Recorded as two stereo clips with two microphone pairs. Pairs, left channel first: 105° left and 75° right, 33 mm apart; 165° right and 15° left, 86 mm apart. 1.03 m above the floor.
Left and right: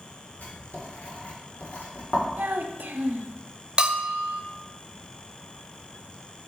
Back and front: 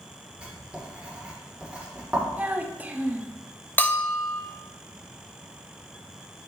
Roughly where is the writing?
Left.